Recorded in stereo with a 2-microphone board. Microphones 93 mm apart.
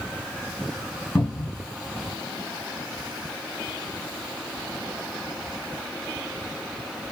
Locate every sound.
1.1 s a cupboard door: 20° left (ahead or behind), 3.5 m